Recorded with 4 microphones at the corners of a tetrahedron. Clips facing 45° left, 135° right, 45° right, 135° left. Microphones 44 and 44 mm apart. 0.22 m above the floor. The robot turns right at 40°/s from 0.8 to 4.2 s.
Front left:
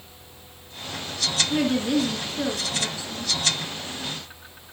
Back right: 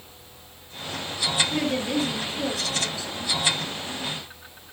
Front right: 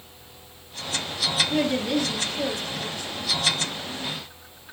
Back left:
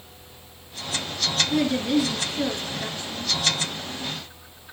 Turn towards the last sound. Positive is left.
turn(degrees=140)